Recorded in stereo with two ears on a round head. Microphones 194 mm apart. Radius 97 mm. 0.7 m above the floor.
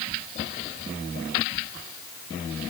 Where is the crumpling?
I don't hear crumpling.